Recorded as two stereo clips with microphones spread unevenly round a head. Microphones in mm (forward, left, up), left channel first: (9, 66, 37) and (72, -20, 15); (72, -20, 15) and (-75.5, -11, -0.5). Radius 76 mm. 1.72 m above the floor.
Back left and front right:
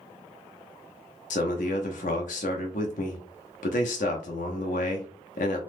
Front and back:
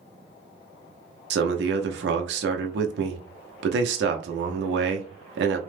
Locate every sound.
1.3 s a man speaking: 155° left, 0.7 m